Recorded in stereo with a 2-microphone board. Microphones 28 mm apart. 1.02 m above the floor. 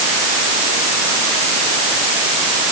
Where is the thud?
I don't hear a thud.